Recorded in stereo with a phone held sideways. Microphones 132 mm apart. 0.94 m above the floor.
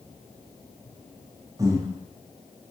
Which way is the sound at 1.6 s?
25° right (ahead or behind).